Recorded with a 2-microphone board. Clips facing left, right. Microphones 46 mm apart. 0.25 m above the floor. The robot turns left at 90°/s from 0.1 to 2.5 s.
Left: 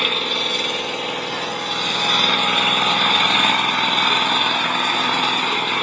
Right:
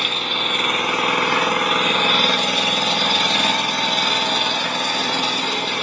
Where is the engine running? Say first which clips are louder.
Left 1 dB; 10° left, 1.0 m; by 5.8 s 155° left, 1.0 m.